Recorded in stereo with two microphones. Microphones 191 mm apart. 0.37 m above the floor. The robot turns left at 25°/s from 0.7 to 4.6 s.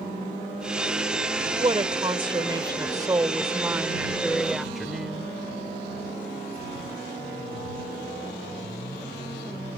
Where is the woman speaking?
25° right (ahead or behind); by 5.3 s centre (ahead or behind).